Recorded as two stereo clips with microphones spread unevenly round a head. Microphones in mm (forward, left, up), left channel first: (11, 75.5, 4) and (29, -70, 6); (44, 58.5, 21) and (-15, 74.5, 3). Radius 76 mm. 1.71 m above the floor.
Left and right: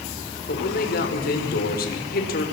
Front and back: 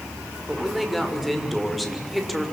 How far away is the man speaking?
About 6 m.